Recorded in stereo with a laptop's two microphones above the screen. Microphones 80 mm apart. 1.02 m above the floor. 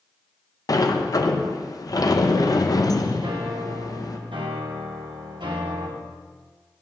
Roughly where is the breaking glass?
No breaking glass in this recording.